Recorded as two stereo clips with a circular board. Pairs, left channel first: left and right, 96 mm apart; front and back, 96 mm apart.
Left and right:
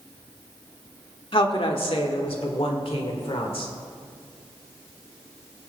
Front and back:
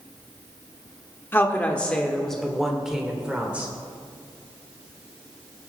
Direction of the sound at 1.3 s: 65° left.